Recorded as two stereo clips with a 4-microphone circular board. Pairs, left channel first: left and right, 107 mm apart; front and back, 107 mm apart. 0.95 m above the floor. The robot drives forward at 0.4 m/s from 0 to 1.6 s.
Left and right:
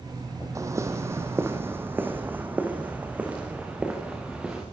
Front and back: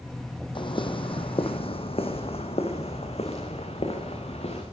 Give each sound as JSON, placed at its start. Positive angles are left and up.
{"t": 0.6, "sound": "footsteps", "azimuth_deg": -30, "distance_m": 2.5}